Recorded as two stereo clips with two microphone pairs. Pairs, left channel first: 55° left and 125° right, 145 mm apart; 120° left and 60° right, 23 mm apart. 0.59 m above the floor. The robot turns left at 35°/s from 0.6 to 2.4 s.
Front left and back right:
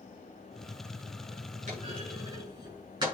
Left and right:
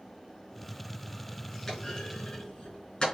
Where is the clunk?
160° right, 5.5 m; by 3.1 s 175° left, 5.5 m.